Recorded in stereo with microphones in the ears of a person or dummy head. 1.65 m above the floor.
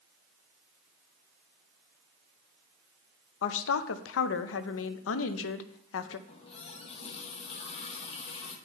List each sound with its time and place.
3.4 s a woman speaking: 75° left (ahead or behind), 0.7 m
6.3 s a running tap: 30° left (ahead or behind), 1.3 m